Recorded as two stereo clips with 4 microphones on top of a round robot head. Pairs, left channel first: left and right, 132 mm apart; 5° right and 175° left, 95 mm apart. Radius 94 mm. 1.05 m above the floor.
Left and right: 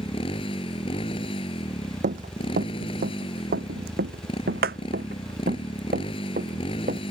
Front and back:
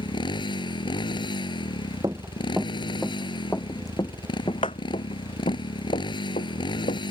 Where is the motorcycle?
30° left.